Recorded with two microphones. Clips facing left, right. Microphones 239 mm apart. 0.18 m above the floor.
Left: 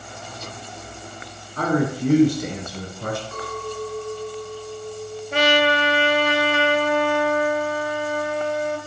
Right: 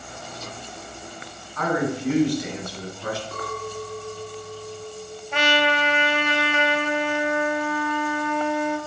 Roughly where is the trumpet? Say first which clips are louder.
Left 4 dB; left.